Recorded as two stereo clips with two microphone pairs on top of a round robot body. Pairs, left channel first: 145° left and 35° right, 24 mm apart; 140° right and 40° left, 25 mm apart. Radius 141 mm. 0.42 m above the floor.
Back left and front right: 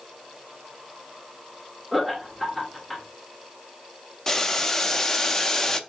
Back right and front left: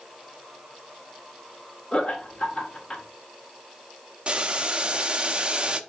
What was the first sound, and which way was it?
Laughter, 135° right.